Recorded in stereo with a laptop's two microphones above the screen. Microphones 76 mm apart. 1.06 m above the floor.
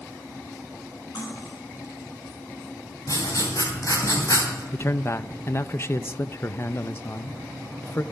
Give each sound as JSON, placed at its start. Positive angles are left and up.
{"t": 1.1, "sound": "cutlery clinking", "side_deg": 65, "distance_m": 7.0}
{"t": 3.1, "sound": "writing", "side_deg": 50, "distance_m": 3.5}
{"t": 4.7, "sound": "a man speaking", "side_deg": 35, "distance_m": 0.7}